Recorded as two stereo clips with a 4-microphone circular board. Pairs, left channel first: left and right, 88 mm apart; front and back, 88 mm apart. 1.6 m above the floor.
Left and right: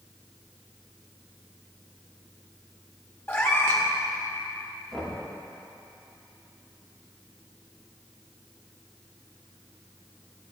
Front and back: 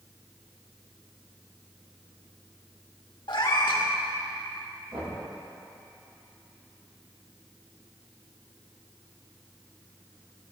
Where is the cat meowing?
25° left, 1.7 m.